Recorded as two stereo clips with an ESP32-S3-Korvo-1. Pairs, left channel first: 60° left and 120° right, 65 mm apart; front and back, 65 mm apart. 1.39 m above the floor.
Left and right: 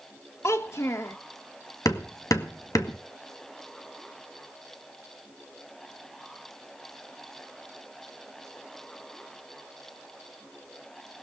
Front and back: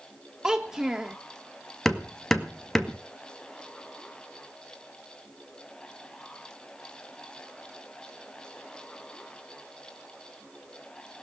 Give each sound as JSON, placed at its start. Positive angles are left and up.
{"t": 0.4, "sound": "a child speaking", "azimuth_deg": 100, "distance_m": 1.1}
{"t": 1.9, "sound": "hammering", "azimuth_deg": 85, "distance_m": 1.9}